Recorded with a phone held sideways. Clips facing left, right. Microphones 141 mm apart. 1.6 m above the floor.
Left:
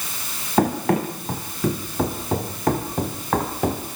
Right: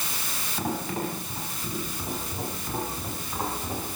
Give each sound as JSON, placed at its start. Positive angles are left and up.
{"t": 0.6, "sound": "running footsteps", "side_deg": 65, "distance_m": 5.5}